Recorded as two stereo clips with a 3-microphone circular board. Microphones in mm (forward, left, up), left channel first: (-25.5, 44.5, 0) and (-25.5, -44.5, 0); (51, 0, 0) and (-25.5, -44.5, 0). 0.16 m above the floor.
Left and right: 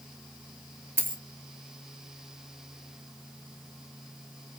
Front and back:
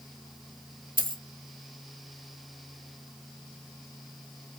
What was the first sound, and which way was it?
A dropped coin, 155° right.